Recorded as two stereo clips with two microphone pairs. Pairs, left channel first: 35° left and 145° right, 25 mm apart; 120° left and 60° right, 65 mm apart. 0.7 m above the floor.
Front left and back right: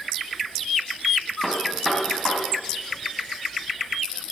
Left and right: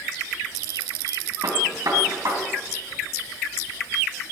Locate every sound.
1.4 s a gunshot: 50° right, 3 m